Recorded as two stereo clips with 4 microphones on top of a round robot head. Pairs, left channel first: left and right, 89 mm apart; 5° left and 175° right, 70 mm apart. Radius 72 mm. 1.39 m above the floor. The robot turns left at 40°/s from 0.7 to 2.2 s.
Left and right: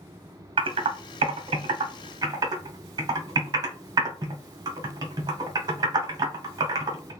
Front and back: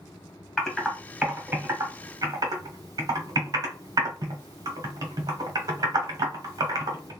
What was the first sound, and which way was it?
Typing on a keyboard, 75° right.